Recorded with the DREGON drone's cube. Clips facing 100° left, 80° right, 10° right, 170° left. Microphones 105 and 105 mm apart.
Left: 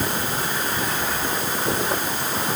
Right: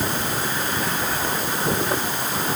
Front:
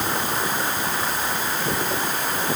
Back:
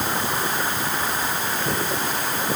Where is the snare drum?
I don't hear a snare drum.